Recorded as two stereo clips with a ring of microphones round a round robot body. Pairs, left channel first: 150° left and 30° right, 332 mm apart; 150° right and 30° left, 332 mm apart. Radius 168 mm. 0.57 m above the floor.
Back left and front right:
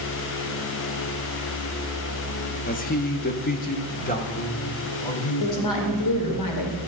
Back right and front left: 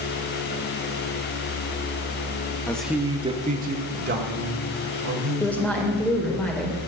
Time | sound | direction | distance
2.7 | a man speaking | 135° left | 0.8 m
5.4 | a woman speaking | 125° left | 2 m